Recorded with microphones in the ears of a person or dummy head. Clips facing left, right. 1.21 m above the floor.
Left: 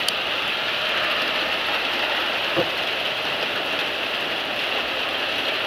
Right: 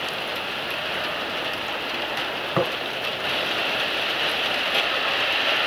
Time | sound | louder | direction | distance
2.5 | tapping | even | 50° right (ahead or behind) | 2.5 m